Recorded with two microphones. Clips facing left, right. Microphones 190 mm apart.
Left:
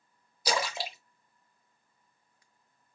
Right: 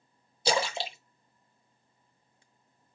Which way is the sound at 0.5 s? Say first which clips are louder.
Right 3 dB; 30° right (ahead or behind).